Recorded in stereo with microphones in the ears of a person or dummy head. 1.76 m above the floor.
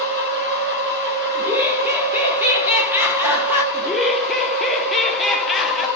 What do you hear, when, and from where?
0.0 s a machine running: 50° right (ahead or behind), 1.8 m
1.4 s laughter: 10° right (ahead or behind), 0.6 m
3.7 s laughter: 5° left (ahead or behind), 0.5 m